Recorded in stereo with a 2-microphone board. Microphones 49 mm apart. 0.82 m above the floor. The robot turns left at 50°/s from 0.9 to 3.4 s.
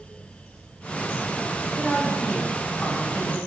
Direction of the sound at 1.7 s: 165° left.